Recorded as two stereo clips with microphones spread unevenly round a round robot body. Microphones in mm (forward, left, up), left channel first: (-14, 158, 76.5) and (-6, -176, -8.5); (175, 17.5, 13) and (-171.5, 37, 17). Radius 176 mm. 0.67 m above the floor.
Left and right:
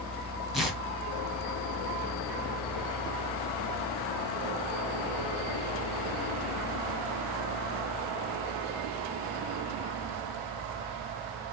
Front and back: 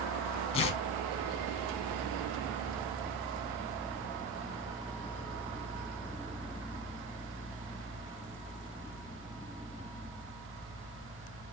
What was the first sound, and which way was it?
Tearing paper, 40° right.